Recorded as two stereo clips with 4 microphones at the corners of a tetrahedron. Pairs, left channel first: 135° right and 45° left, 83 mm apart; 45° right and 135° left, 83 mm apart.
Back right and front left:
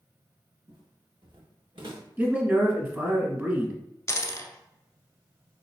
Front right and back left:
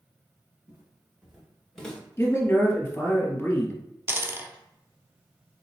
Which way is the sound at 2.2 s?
5° right.